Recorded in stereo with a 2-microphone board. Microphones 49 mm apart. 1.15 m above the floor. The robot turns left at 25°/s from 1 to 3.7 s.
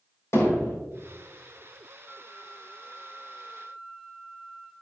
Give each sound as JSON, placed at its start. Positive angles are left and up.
{"t": 0.3, "sound": "hammering", "side_deg": 75, "distance_m": 4.0}
{"t": 2.0, "sound": "a flute", "azimuth_deg": 40, "distance_m": 2.0}